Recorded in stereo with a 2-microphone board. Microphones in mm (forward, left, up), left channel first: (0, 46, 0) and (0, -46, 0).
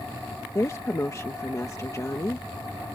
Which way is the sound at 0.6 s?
35° left (ahead or behind).